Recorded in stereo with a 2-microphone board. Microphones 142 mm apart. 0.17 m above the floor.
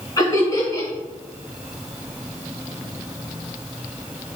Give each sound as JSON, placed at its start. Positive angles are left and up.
{"t": 0.2, "sound": "laughter", "side_deg": 25, "distance_m": 1.9}